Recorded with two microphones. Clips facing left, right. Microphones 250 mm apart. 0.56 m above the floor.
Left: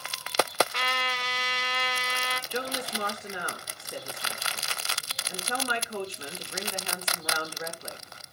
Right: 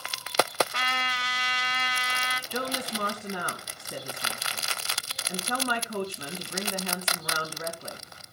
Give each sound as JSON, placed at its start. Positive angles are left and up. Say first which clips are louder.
{"t": 0.7, "sound": "a trumpet", "louder": "left 2 dB", "side_deg": -55, "distance_m": 1.9}
{"t": 2.5, "sound": "a woman speaking", "louder": "right 1 dB", "side_deg": -55, "distance_m": 3.5}